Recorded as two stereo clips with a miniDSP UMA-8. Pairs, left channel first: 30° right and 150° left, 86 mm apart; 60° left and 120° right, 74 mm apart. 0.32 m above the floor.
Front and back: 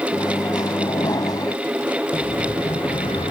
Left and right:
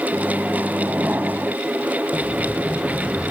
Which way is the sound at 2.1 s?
35° right.